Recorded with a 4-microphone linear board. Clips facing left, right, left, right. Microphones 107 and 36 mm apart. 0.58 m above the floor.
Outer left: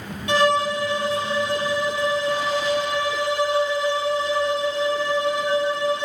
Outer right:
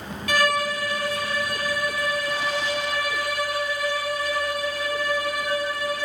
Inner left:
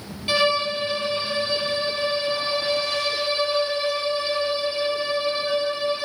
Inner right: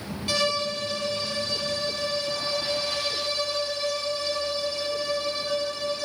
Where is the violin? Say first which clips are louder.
Outer left 4 dB, inner left 5 dB; 25° left (ahead or behind), 0.6 m.